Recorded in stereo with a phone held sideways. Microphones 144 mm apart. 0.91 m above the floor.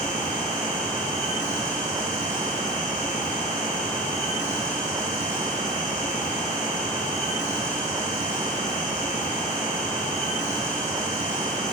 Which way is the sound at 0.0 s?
55° left (ahead or behind).